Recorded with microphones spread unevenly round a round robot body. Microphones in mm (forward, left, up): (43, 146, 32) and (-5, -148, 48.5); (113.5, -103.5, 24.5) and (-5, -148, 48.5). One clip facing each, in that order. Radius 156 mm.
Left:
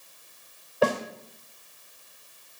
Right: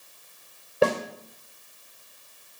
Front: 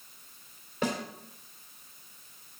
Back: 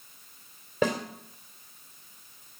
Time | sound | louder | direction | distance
0.8 | a snare drum | right 2 dB, back 5 dB | 165° right | 2.5 m